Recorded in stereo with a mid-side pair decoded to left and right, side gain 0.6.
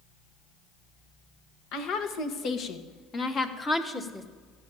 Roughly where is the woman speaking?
Ahead left.